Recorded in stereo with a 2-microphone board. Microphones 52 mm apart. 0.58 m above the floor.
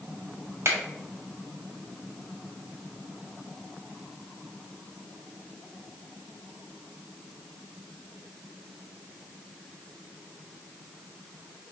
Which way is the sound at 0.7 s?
50° right (ahead or behind).